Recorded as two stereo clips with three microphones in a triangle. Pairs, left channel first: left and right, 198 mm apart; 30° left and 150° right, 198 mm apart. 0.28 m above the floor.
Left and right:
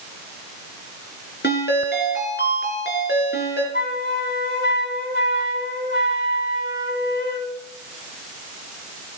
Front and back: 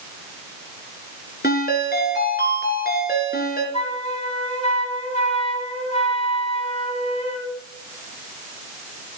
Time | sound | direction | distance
1.4 | a ringtone | 65° left | 2.5 m
3.7 | a flute | 80° left | 1.6 m